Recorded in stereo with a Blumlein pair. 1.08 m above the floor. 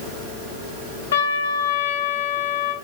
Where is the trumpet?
60° left, 2 m.